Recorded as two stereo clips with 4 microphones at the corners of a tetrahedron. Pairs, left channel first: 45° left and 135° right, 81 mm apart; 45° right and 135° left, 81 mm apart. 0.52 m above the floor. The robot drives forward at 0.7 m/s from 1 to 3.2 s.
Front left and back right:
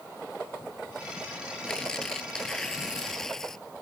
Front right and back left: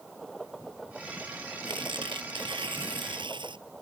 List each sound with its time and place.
1.6 s tearing paper: 125° left; by 3.6 s 130° left